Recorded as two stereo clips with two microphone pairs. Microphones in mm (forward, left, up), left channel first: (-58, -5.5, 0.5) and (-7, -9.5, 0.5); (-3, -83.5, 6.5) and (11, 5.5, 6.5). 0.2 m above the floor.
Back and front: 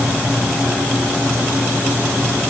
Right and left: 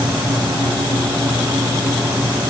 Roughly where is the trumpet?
No trumpet in this recording.